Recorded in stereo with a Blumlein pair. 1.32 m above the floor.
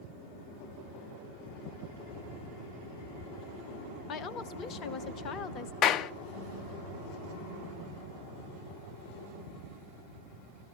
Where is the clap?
35° left, 0.6 m.